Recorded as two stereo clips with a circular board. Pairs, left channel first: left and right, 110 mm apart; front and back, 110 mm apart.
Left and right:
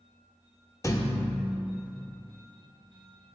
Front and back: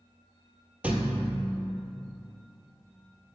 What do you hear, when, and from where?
0.8 s a thud: 115° left, 0.7 m